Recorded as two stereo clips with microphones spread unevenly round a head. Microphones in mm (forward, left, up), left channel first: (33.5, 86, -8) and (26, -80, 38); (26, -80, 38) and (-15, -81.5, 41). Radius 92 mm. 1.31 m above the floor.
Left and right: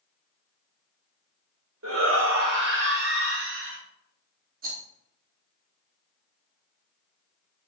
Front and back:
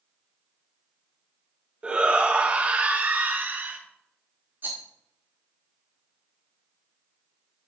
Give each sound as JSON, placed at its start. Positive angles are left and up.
{"t": 1.8, "sound": "a shout", "azimuth_deg": -110, "distance_m": 2.5}
{"t": 4.6, "sound": "a rattle", "azimuth_deg": -135, "distance_m": 3.0}